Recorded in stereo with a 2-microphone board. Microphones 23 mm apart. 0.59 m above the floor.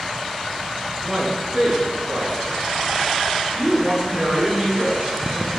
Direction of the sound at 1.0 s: Centre (ahead or behind).